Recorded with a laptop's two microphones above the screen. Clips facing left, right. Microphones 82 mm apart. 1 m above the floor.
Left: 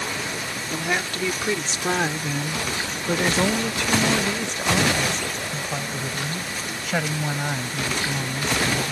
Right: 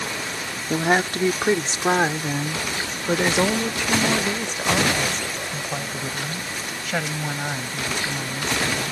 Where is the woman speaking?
40° right (ahead or behind); by 8.9 s 5° left (ahead or behind).